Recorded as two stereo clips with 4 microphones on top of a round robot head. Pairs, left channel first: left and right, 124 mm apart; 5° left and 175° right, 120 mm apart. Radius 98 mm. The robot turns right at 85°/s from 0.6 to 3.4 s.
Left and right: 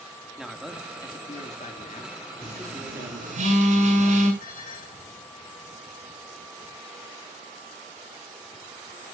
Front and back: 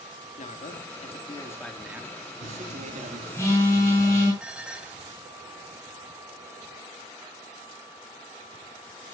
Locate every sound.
0.4 s a man speaking: 5° right, 1.7 m; by 3.4 s 125° right, 1.7 m
2.4 s a phone buzzing: 150° right, 7.5 m; by 4.3 s 70° right, 7.5 m
4.4 s dishes clattering: 105° left, 3 m